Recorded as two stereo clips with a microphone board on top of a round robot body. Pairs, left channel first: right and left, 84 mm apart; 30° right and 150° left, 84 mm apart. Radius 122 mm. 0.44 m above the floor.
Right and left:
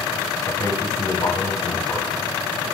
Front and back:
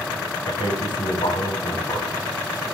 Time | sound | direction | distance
0.5 | a man speaking | 40° right | 5.5 m